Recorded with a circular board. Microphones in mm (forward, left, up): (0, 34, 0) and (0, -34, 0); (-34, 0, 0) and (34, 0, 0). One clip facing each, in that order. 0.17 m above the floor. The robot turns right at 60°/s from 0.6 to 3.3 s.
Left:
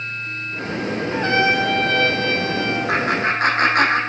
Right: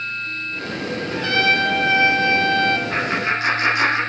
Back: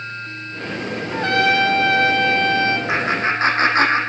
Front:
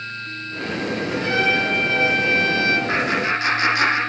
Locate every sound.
1.1 s a trumpet: 140° left, 2.5 m; by 2.8 s 120° right, 2.5 m
2.9 s laughter: 105° left, 8 m; by 4.0 s 130° left, 8 m